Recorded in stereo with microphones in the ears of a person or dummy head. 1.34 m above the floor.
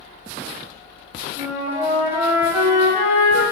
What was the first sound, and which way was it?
A flute, 5° right (ahead or behind).